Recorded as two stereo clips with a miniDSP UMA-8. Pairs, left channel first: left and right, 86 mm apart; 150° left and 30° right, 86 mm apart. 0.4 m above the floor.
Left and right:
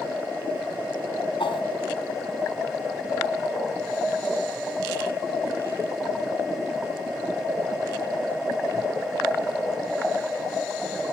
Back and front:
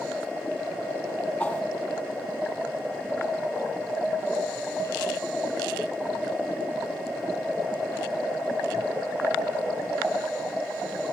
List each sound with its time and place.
1.4 s a whoosh: 70° left, 2.5 m